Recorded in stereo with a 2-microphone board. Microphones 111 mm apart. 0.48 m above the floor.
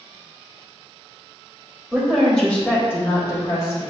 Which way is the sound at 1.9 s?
5° right (ahead or behind).